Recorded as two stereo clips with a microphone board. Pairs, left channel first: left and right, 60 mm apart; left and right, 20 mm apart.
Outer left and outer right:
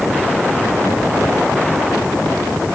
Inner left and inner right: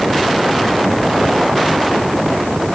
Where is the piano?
No piano in this recording.